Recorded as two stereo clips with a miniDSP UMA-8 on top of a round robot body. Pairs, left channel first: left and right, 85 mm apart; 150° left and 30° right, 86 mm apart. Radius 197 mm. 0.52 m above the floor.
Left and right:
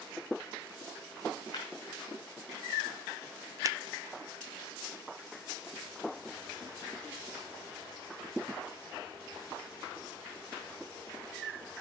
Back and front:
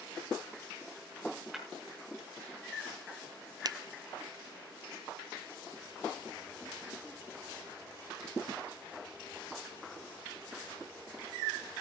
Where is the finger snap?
50° right, 0.7 m.